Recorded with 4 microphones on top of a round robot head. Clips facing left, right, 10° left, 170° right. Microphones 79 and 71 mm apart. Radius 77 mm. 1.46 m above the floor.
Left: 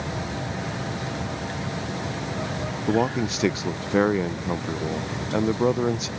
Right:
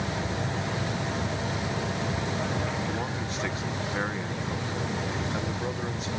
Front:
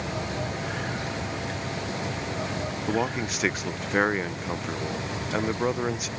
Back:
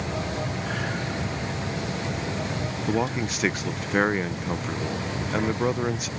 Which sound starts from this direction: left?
A man speaking, at 2.9 s.